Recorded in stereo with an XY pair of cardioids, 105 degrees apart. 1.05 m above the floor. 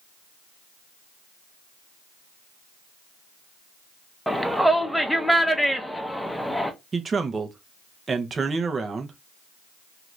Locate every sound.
4.3 s a shout: straight ahead, 0.8 m
6.9 s a man speaking: 35° right, 0.7 m